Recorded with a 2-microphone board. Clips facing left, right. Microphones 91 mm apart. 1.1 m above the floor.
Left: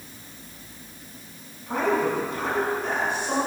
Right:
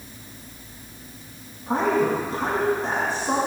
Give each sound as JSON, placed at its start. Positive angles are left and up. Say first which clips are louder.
{"t": 1.7, "sound": "a woman speaking", "louder": "right 2 dB", "side_deg": -35, "distance_m": 8.0}